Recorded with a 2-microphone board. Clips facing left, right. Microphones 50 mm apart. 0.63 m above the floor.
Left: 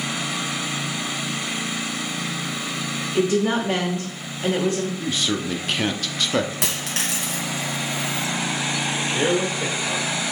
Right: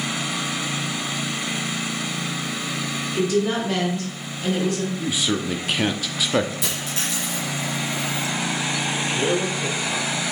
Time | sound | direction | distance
3.1 | a woman speaking | 40° left (ahead or behind) | 1.5 m
5.0 | a man speaking | 5° right (ahead or behind) | 0.7 m
6.6 | a dropped coin | 75° left (ahead or behind) | 2 m
9.1 | a man speaking | 60° left (ahead or behind) | 3 m